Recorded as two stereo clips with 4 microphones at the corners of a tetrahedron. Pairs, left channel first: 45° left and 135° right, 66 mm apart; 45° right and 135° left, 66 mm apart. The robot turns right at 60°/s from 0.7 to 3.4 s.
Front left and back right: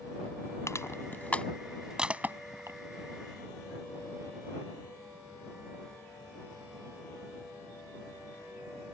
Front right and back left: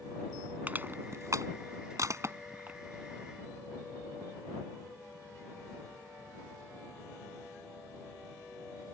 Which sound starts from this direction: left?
Crushing, at 0.7 s.